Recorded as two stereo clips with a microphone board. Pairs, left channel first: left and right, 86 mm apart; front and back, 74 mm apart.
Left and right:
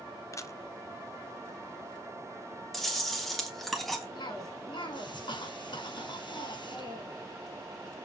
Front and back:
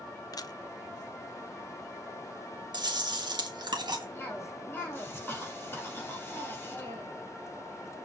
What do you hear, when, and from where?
0.3 s a camera shutter: 35° left, 0.5 m
2.7 s chewing: 175° left, 1.6 m
4.2 s a cough: 65° left, 5.5 m